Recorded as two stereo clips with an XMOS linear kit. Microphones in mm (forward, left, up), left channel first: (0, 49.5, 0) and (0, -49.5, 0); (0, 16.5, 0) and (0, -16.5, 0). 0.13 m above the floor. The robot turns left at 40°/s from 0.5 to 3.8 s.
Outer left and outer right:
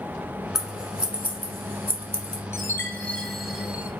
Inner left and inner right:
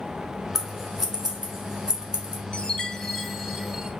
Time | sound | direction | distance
0.6 | scissors | 5° right (ahead or behind) | 1.0 m
2.5 | a chime | 35° left | 0.6 m